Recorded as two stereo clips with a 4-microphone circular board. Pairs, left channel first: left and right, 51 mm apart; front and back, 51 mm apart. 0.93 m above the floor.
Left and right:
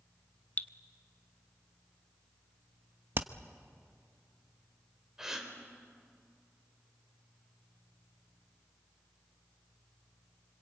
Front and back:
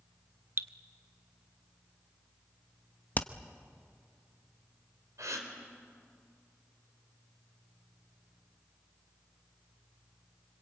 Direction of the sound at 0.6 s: 145° left.